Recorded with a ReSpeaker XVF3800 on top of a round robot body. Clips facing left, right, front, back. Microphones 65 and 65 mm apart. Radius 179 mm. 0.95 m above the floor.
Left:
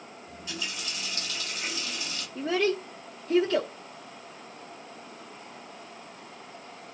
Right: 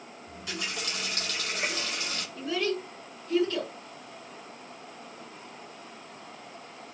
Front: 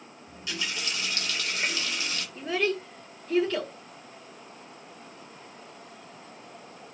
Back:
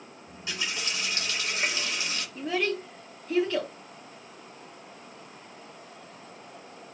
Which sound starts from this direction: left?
A child speaking, at 2.4 s.